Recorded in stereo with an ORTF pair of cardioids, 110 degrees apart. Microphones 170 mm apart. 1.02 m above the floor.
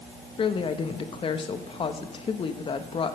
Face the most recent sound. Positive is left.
turn(degrees=30)